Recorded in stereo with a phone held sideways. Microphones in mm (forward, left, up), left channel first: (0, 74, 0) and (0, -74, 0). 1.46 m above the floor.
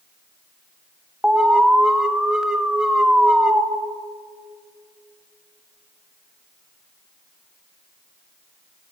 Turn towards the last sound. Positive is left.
turn(degrees=-5)  # may be behind; listen again after turning